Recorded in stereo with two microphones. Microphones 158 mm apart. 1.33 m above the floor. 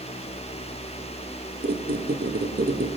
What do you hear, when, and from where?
1.6 s a squeak: 80° right, 1.1 m